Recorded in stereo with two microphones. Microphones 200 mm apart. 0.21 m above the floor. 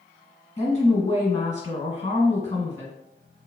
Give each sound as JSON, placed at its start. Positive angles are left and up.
{"t": 0.6, "sound": "a woman speaking", "side_deg": 35, "distance_m": 1.5}